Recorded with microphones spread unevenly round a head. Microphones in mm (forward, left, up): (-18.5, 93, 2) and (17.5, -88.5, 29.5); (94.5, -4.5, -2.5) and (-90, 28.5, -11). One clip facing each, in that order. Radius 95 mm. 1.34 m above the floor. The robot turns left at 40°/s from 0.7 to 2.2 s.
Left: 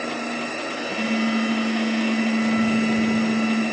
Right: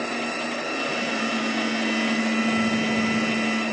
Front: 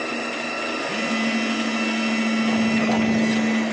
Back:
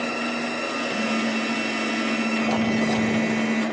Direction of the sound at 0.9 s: Straight ahead.